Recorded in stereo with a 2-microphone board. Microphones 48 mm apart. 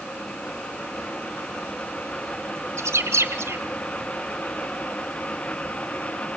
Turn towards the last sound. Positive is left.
turn(degrees=-75)  # may be behind; listen again after turning